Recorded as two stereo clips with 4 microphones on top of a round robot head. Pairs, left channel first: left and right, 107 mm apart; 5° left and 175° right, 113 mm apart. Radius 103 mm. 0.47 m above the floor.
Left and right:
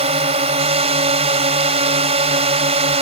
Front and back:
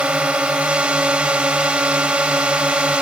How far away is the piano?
I don't hear a piano.